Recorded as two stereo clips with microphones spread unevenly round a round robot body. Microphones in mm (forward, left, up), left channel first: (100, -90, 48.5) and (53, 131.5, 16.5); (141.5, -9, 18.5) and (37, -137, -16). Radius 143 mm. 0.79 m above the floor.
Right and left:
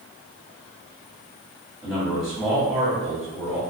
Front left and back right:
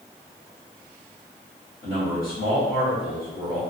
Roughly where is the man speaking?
Ahead.